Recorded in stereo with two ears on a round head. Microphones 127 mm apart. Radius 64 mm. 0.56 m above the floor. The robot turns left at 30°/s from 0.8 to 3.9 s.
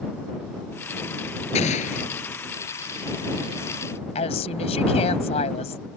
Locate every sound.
1.6 s an explosion: 50° left (ahead or behind); by 2.1 s 65° left (ahead or behind)
4.2 s a woman speaking: 45° left (ahead or behind)